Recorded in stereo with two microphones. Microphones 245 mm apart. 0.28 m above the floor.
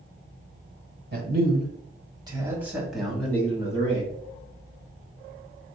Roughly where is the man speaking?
Right.